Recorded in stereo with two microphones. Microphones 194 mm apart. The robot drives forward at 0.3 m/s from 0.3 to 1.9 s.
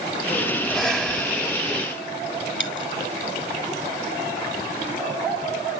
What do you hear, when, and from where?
0.6 s breathing: 5° left (ahead or behind), 2.0 m
2.6 s a dropped coin: 75° left (ahead or behind), 1.0 m